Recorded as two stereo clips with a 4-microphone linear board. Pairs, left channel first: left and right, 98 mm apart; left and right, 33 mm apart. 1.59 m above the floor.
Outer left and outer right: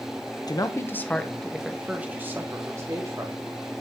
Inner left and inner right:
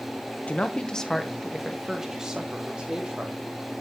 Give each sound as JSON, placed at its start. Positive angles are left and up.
{"t": 0.5, "sound": "a man speaking", "side_deg": 45, "distance_m": 0.7}